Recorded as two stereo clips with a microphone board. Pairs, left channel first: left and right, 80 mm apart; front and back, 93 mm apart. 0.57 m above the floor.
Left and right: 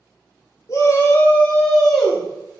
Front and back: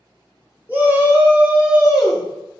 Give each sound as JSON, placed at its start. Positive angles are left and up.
{"t": 0.7, "sound": "a shout", "azimuth_deg": 115, "distance_m": 0.9}